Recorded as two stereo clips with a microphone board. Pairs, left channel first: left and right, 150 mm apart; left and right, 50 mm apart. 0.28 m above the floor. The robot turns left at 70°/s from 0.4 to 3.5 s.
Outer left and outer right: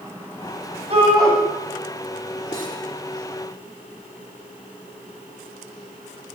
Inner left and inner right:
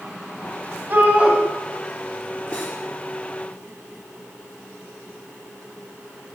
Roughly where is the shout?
Right.